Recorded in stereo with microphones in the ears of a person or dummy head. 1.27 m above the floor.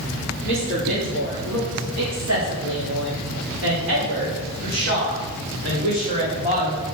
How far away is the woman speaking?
About 3.5 m.